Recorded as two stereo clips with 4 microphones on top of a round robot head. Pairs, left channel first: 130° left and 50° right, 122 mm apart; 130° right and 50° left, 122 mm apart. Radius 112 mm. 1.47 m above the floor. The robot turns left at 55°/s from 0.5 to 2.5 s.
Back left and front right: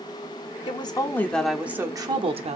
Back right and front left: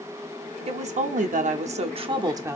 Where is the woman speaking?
85° left, 0.8 m; by 2.6 s 15° right, 0.8 m.